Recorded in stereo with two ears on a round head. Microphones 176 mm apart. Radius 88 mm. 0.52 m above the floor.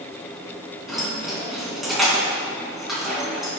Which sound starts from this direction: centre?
Keys jangling, at 0.9 s.